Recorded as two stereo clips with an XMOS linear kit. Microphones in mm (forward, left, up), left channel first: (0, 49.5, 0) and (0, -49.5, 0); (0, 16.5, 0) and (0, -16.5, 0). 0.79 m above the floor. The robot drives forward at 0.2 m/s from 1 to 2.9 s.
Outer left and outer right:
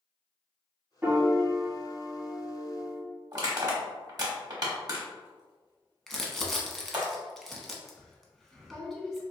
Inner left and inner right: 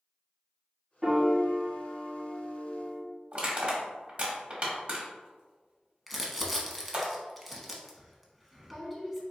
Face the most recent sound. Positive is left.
turn(degrees=0)  # may be behind; listen again after turning